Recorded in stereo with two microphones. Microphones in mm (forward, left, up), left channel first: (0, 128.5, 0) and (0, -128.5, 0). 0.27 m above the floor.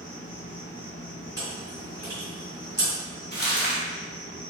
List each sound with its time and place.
0.0 s an insect: 35° left (ahead or behind), 1.2 m
1.4 s chewing: 35° left (ahead or behind), 1.8 m
3.3 s crumpling: 40° left (ahead or behind), 1.2 m